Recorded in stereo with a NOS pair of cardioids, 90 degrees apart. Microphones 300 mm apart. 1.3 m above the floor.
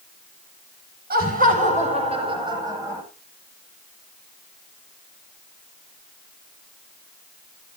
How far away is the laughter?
About 7 m.